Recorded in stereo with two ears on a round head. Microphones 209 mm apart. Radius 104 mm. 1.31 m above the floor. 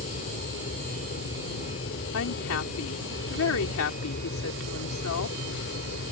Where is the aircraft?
35° left (ahead or behind); by 6.1 s 45° left (ahead or behind).